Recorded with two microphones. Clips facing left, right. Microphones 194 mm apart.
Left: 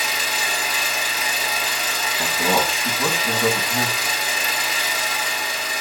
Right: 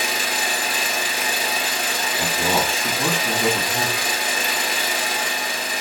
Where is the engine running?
55° right (ahead or behind), 1.4 m.